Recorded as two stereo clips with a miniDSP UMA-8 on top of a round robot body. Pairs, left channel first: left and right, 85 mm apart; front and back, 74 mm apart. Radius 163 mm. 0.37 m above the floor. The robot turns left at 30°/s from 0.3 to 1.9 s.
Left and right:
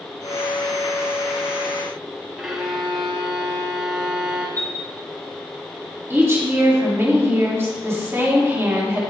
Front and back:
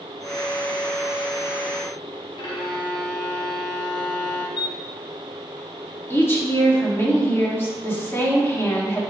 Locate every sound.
2.4 s a violin: 5° right, 1.1 m
4.6 s a chime: 25° left, 2 m
6.1 s a woman speaking: 45° right, 1.9 m